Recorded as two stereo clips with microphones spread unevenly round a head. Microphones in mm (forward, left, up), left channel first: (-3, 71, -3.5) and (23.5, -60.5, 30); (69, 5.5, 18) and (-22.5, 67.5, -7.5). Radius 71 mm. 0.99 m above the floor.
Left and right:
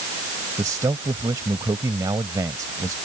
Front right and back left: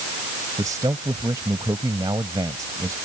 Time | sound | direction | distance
0.6 | a man speaking | 145° right | ?